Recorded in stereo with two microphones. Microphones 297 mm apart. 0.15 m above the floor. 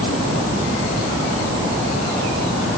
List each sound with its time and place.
Only background noise.